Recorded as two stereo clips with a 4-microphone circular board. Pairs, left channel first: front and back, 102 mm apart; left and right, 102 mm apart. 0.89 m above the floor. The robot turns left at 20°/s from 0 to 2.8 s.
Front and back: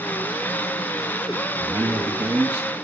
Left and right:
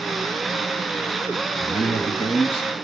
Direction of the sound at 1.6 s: 120° left.